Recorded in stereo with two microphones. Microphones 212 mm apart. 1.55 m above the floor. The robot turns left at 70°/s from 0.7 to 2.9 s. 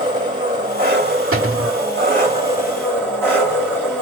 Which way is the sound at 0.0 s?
35° right.